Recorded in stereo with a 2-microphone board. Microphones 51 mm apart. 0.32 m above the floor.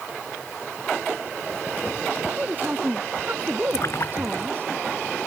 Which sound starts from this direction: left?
A splash, at 3.7 s.